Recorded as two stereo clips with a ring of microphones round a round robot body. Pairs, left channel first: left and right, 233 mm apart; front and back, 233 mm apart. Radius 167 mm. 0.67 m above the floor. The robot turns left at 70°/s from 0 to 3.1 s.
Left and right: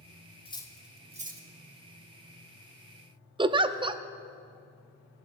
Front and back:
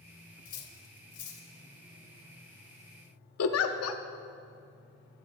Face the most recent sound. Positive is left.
turn(degrees=-20)